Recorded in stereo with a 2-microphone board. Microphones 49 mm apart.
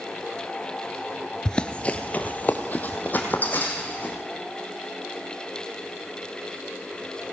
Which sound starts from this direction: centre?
Running footsteps, at 1.4 s.